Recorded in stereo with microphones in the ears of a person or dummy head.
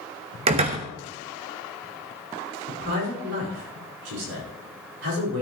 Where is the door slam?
30° right (ahead or behind), 1.0 m.